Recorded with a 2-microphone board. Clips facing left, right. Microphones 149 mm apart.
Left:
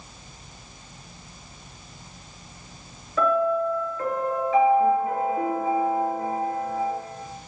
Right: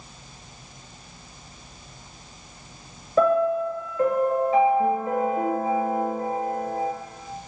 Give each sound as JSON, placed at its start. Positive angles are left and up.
{"t": 3.2, "sound": "a piano", "side_deg": -35, "distance_m": 1.0}